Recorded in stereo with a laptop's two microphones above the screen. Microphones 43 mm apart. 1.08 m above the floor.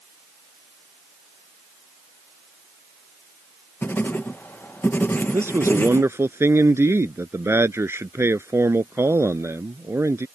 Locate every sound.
3.8 s writing: 55° left (ahead or behind)
5.3 s a man speaking: 70° right (ahead or behind)